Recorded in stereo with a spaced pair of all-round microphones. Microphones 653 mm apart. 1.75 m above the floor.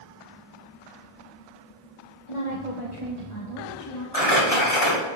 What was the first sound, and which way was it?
A woman speaking, 50° left (ahead or behind).